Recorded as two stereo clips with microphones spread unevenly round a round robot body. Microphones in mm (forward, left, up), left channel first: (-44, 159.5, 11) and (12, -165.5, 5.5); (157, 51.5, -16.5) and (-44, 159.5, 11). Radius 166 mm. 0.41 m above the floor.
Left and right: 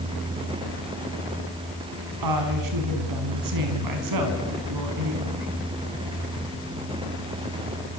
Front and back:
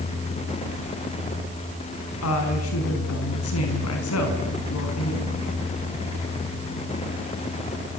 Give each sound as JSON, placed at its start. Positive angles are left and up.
{"t": 2.2, "sound": "a woman speaking", "azimuth_deg": -55, "distance_m": 4.5}